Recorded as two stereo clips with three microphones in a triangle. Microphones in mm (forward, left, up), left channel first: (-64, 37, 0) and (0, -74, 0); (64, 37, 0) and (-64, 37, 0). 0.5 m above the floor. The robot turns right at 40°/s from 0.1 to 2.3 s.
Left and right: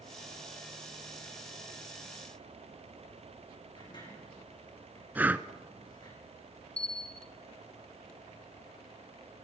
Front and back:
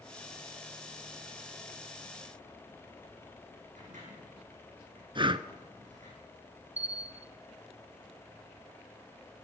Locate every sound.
3.8 s a sliding door: 170° left, 7 m
5.2 s breathing: 135° right, 0.9 m
6.8 s a bell: 155° left, 0.9 m